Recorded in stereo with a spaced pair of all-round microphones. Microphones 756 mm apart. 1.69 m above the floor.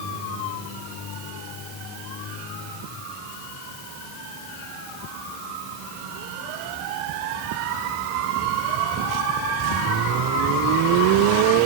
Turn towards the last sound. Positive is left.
No sound to turn to.